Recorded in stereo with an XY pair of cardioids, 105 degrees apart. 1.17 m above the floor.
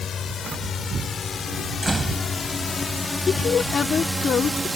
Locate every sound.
0.0 s a drone: 50° left; by 4.8 s 25° right
1.8 s a door slam: 15° right
3.3 s a woman speaking: 45° left